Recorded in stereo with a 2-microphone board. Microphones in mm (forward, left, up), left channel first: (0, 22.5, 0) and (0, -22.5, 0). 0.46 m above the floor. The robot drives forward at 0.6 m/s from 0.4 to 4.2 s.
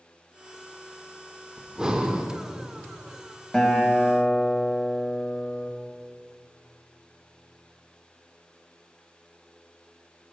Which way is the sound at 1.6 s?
15° right (ahead or behind).